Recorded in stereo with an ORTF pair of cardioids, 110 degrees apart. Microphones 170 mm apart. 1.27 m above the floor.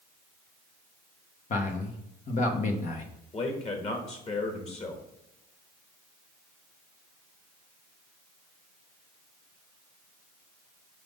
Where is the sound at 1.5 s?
50° left, 1.2 m.